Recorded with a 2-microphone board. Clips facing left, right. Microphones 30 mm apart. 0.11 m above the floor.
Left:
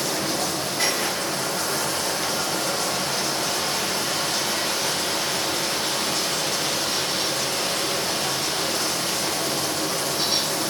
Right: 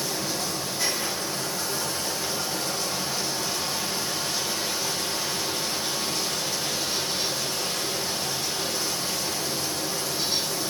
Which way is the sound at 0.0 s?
60° left (ahead or behind).